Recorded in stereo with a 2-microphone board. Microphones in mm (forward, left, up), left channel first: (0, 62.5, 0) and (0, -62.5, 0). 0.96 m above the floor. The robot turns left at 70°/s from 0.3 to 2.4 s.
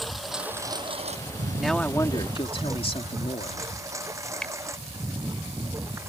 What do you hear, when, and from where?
0.0 s a lawn mower: centre (ahead or behind); by 6.1 s 20° right (ahead or behind)
1.6 s a man speaking: 175° right; by 3.6 s 125° left
4.4 s a finger snap: 5° left (ahead or behind)